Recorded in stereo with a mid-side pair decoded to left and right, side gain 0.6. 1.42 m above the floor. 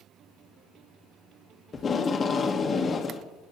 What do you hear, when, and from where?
1.7 s tape being pulled: 30° left, 1.1 m